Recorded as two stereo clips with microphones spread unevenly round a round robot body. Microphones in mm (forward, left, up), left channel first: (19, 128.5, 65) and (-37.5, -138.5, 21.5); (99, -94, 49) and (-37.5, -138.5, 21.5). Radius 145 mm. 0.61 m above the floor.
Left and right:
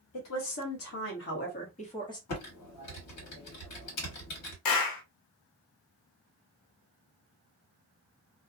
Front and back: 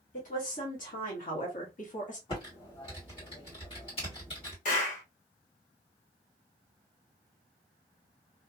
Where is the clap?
65° left, 0.8 m.